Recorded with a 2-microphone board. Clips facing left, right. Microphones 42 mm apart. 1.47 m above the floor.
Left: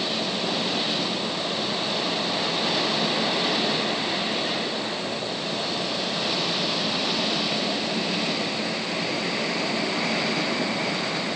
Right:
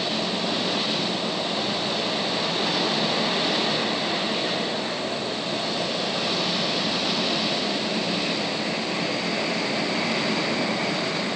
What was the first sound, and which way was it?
Only background noise.